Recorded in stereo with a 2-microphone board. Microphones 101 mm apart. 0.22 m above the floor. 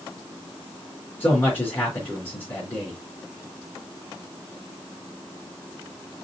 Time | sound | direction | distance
1.2 | a man speaking | 15° left (ahead or behind) | 3 m